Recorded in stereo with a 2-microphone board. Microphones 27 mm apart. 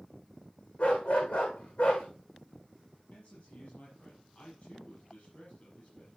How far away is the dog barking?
About 5.5 m.